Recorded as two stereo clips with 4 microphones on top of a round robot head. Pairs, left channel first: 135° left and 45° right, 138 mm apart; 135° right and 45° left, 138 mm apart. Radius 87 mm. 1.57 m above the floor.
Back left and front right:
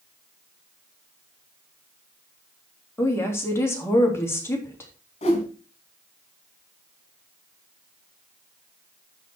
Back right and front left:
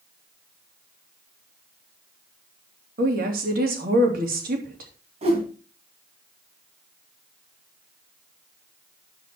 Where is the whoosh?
90° left, 3 m.